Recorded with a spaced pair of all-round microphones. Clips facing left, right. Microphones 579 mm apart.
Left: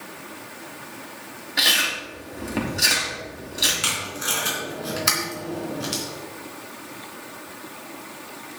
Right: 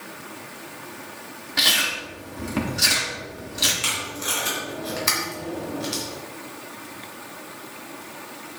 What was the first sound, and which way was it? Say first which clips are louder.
Chewing: even; 30° right (ahead or behind).